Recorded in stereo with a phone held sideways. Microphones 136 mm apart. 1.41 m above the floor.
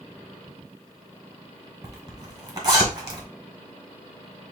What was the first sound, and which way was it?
A zipper, 30° right (ahead or behind).